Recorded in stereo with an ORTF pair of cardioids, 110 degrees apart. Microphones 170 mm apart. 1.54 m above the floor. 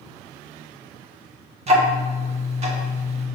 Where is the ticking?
35° right, 1.7 m.